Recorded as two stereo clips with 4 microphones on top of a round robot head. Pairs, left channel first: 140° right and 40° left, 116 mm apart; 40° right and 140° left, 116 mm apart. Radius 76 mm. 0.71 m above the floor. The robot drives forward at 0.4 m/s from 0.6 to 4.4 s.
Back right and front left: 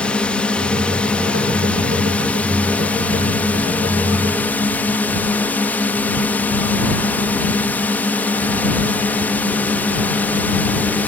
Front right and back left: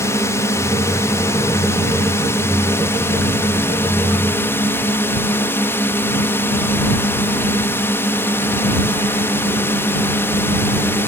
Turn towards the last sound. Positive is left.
turn(degrees=-85)